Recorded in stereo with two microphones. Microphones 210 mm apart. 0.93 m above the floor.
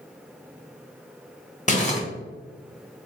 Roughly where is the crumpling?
Left.